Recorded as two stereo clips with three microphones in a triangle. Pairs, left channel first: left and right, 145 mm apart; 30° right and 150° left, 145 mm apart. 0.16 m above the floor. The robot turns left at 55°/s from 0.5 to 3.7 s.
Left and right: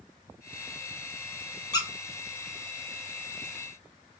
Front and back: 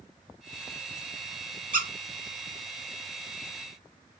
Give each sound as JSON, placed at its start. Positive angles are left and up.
{"t": 1.7, "sound": "a squeak", "azimuth_deg": 150, "distance_m": 0.5}